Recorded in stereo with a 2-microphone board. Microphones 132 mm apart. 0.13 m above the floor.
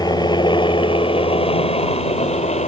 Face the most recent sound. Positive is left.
turn(degrees=55)  # may be behind; listen again after turning